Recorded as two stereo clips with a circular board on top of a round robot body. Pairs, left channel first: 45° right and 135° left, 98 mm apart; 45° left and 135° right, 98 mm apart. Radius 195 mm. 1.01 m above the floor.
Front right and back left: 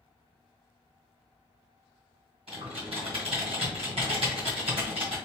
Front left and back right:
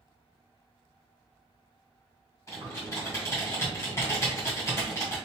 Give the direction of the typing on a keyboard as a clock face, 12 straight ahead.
8 o'clock.